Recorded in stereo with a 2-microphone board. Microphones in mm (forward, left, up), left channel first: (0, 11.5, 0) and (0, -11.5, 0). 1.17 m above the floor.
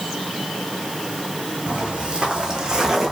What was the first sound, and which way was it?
Footsteps, 45° right (ahead or behind).